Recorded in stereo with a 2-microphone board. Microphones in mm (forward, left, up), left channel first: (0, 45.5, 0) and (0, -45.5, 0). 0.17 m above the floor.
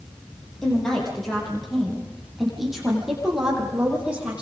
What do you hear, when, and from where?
0.6 s a woman speaking: 5° left (ahead or behind), 8.5 m; by 4.4 s 15° right (ahead or behind), 7.5 m